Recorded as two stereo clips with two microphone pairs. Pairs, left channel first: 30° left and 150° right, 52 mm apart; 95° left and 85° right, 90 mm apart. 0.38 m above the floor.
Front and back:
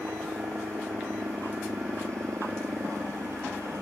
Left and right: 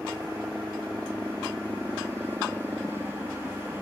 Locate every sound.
0.0 s a helicopter: 155° right